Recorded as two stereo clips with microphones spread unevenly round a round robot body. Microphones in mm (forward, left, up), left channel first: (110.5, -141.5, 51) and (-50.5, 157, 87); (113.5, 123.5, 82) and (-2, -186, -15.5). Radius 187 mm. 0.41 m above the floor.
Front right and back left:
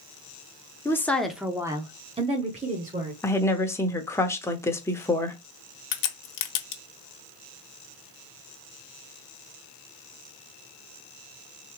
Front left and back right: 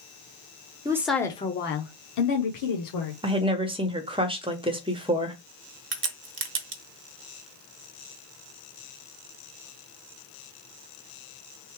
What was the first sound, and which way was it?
A woman speaking, 120° right.